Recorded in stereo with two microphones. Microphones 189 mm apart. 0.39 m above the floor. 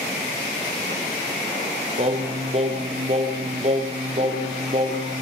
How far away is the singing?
About 4 m.